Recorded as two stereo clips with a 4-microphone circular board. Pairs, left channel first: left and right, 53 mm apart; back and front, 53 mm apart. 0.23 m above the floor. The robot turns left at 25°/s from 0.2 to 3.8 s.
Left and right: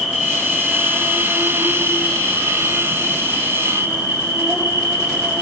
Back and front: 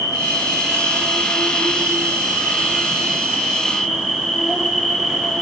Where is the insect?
Straight ahead, 4 m; by 5.4 s 90° right, 4 m.